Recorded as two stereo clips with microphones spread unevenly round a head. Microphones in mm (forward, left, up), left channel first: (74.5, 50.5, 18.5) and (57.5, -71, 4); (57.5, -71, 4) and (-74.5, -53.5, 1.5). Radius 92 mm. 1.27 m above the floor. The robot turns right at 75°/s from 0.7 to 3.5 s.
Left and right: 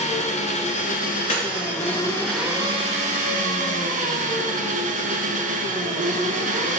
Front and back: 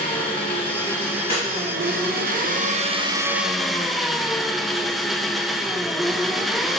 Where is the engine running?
55° left, 0.7 m; by 6.8 s 95° right, 0.7 m.